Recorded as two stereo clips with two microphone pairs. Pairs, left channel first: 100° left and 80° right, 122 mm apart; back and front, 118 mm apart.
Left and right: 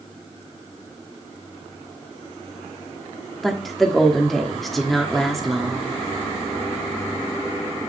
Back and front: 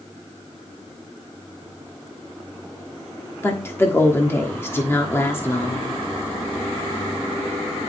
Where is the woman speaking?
175° right, 1.3 m.